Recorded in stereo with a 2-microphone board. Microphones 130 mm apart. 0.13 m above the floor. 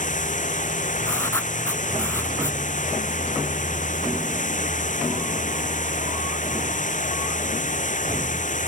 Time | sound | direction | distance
0.0 | running water | 80° left | ?
1.0 | writing | 20° left (ahead or behind) | ?